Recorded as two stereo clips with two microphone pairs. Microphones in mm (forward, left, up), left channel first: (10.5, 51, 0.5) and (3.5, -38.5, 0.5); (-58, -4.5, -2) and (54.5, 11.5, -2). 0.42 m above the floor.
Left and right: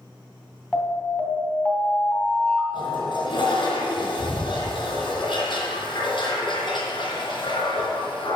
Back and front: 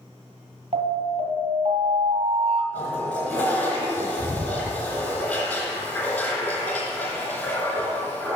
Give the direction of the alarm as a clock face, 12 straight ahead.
12 o'clock.